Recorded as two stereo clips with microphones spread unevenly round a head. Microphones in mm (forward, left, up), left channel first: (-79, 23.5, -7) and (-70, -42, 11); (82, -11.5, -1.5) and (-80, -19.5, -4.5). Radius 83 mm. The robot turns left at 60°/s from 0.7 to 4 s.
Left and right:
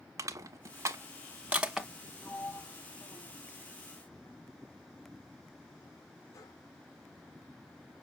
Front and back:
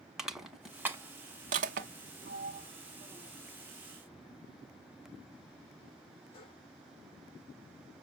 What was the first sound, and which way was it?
Crushing, 90° right.